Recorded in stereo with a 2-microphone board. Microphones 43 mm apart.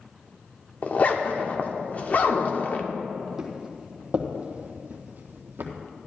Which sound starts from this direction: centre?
Footsteps, at 3.4 s.